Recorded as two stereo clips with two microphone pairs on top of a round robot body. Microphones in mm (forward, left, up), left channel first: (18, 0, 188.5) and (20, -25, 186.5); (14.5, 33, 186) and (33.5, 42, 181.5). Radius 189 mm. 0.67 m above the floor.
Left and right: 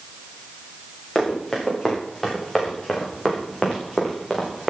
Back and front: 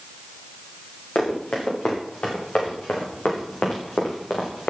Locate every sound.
1.1 s running footsteps: straight behind, 8 m; by 4.7 s 175° right, 5.5 m